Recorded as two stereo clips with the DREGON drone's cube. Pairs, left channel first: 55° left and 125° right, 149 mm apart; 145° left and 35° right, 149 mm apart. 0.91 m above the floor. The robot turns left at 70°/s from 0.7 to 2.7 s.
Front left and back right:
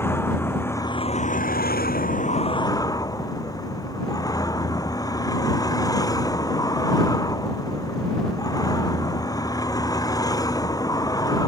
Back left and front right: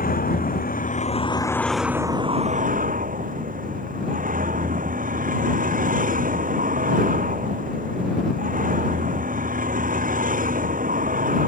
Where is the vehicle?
130° left; by 11.5 s 10° right.